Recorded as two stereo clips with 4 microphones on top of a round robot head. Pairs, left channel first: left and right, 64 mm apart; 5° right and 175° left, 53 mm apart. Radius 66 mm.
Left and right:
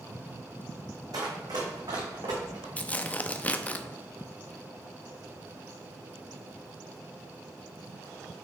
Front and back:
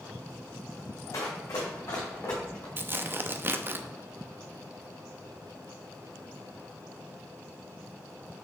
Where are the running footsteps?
50° right, 1.5 m; by 2.7 s 65° right, 3 m.